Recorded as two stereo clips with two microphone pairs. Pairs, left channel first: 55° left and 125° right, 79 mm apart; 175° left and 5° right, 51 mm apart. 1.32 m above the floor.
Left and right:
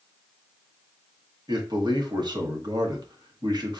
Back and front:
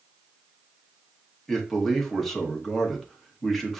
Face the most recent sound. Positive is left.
turn(degrees=-100)